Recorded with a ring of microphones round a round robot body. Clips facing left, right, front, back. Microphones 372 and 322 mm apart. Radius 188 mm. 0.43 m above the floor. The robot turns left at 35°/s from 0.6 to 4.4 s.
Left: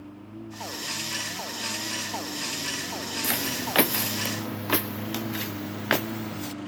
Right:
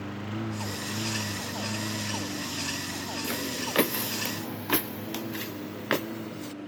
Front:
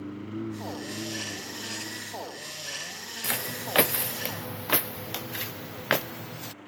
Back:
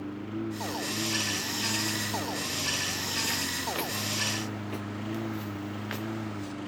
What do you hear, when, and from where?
0.0 s a lawn mower: 90° right; by 6.7 s 155° left
3.2 s footsteps: 20° left; by 6.5 s 10° left